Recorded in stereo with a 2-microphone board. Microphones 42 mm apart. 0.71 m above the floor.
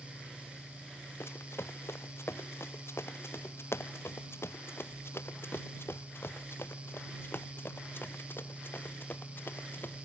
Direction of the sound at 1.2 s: 85° left.